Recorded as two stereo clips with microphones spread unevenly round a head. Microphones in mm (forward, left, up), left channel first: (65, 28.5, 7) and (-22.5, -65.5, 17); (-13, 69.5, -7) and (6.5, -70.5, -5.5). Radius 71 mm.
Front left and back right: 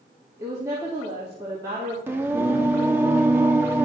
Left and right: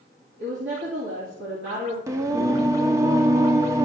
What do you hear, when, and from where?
0.4 s a woman speaking: 70° right, 3 m
2.1 s singing: 105° right, 0.8 m